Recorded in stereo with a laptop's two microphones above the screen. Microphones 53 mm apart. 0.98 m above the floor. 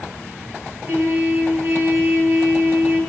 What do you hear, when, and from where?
0.8 s a trumpet: 45° right (ahead or behind), 4.5 m